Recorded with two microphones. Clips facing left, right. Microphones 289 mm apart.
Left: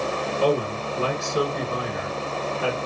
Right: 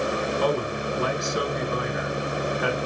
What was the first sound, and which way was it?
A man speaking, 30° left (ahead or behind).